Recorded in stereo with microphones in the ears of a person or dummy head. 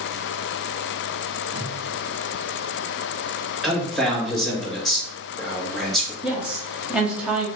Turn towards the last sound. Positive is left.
turn(degrees=-5)  # may be behind; listen again after turning